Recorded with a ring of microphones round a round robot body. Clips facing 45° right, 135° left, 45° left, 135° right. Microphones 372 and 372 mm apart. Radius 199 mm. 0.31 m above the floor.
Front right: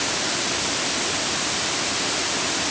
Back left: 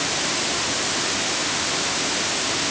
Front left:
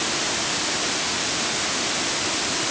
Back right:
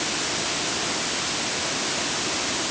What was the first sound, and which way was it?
Only background noise.